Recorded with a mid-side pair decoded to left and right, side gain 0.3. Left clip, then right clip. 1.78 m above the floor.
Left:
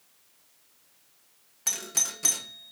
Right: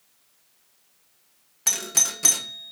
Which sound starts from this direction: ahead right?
A doorbell, at 1.7 s.